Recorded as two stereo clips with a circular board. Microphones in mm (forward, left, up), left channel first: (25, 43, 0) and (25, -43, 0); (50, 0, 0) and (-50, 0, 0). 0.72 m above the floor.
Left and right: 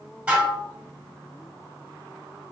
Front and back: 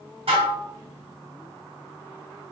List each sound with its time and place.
0.3 s dishes clattering: 165° right, 1.8 m